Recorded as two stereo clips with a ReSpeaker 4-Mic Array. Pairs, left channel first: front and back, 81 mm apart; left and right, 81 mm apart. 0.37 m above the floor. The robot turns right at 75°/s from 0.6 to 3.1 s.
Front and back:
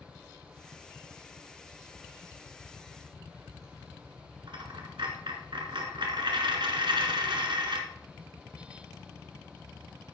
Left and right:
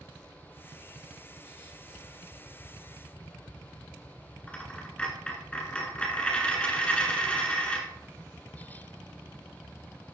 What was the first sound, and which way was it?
A dropped coin, 160° left.